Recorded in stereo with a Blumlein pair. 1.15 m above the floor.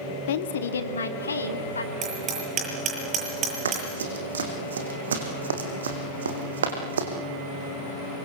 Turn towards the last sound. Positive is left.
turn(degrees=-65)